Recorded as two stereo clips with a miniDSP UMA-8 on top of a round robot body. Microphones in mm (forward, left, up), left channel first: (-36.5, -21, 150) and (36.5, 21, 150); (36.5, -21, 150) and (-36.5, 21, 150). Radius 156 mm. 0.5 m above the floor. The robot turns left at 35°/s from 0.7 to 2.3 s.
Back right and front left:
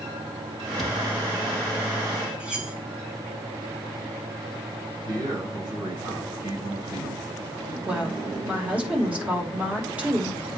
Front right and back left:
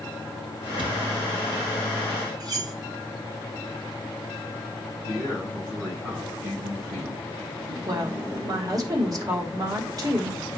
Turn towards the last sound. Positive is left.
turn(degrees=105)